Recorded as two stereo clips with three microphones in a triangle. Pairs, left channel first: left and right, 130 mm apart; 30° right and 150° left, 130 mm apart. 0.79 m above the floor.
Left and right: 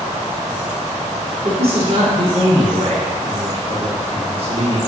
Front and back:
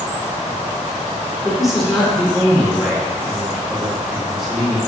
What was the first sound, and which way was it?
A man speaking, 120° right.